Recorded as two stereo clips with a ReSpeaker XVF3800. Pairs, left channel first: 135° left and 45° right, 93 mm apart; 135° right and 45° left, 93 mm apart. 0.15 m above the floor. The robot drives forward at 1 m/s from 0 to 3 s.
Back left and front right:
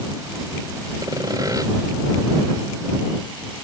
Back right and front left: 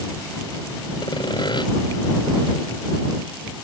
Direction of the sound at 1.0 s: 95° right.